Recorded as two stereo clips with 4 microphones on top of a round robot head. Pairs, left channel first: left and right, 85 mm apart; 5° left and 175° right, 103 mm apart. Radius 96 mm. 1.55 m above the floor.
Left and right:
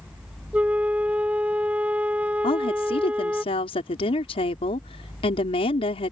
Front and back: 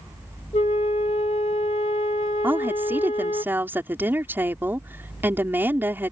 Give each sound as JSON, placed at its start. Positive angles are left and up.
{"t": 0.5, "sound": "a flute", "azimuth_deg": -25}
{"t": 2.4, "sound": "a woman speaking", "azimuth_deg": 115}